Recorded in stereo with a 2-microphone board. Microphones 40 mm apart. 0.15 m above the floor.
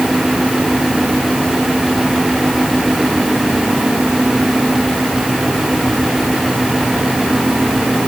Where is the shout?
I don't hear a shout.